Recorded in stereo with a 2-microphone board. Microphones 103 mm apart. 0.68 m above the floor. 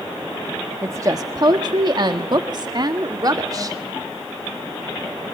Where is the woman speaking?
30° right (ahead or behind), 1.3 m; by 3.8 s 35° right (ahead or behind), 2 m.